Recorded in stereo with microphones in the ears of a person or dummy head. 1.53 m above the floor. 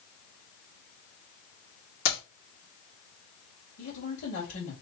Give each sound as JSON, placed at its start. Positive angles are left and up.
{"t": 2.0, "sound": "keys jangling", "side_deg": 75, "distance_m": 2.5}
{"t": 3.8, "sound": "a woman speaking", "side_deg": 75, "distance_m": 2.5}